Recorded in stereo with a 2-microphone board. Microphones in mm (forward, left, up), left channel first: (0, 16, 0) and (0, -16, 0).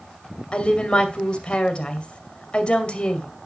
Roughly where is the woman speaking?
Left.